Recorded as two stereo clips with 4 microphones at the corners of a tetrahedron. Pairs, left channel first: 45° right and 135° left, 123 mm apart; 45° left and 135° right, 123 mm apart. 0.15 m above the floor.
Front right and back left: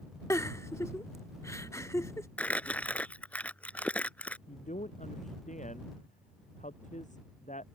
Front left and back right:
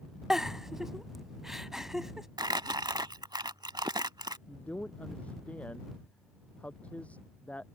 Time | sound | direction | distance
0.3 | a giggle | 55° right | ?
2.4 | crumpling | 115° right | ?
4.5 | a man speaking | 35° right | ?